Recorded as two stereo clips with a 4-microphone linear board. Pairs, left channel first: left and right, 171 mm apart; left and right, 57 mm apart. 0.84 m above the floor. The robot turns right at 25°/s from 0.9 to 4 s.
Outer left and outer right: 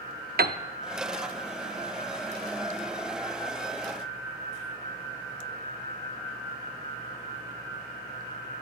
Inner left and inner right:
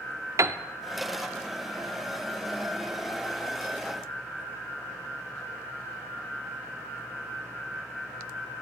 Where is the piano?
65° right (ahead or behind), 0.6 m.